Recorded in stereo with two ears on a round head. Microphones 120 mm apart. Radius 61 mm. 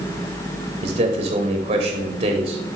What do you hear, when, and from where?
0.8 s a man speaking: 40° right (ahead or behind), 1.2 m